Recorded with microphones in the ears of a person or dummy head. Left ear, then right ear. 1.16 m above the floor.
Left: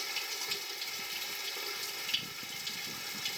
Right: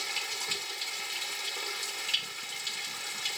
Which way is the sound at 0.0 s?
15° right (ahead or behind).